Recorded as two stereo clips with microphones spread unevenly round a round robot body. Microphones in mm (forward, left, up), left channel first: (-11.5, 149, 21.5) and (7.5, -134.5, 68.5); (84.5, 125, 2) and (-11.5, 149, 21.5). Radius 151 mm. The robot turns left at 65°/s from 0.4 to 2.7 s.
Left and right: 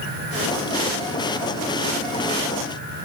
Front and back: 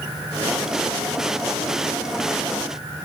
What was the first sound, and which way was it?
Only background noise.